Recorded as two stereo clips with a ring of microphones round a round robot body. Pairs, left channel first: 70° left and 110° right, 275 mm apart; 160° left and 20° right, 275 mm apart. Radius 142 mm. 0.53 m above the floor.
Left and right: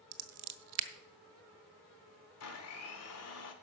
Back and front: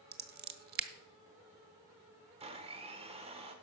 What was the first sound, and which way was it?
Scissors, 80° right.